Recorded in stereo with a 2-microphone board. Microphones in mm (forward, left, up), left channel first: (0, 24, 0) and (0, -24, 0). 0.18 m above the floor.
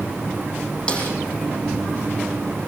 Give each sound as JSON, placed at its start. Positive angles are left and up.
{"t": 0.9, "sound": "a snare drum", "side_deg": 20, "distance_m": 8.5}